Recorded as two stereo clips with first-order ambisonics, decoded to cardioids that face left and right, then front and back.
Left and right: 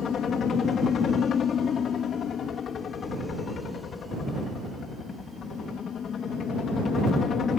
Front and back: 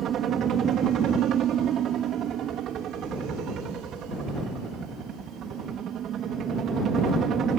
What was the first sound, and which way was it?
A helicopter, 140° left.